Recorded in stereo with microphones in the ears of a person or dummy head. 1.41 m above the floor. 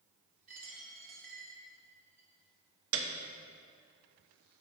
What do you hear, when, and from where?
0.5 s a dropped coin: 35° right (ahead or behind), 1.7 m
2.9 s a piano: 65° right (ahead or behind), 0.8 m